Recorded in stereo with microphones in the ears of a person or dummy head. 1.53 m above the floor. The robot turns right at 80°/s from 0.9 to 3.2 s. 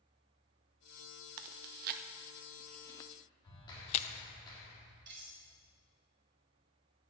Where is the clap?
30° left (ahead or behind), 3.5 m.